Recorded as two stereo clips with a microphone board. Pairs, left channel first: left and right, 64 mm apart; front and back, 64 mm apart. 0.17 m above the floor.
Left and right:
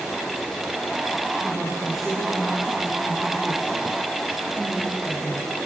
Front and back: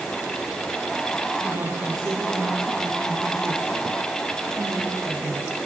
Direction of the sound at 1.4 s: Straight behind.